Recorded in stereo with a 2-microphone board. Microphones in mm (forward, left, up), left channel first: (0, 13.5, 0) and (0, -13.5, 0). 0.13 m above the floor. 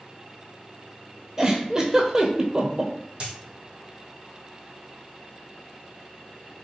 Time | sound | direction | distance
1.4 | a giggle | 25° right (ahead or behind) | 0.6 m
3.2 | a dropped coin | 40° right (ahead or behind) | 1.6 m